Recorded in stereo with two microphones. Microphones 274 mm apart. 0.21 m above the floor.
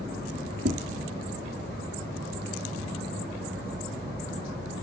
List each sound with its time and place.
0.7 s tapping: 45° right (ahead or behind), 3.5 m